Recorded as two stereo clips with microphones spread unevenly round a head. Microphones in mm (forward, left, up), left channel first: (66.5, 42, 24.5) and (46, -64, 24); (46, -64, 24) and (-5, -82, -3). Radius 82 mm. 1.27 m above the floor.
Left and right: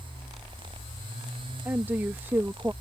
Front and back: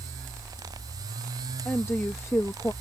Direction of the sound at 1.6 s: 30° right.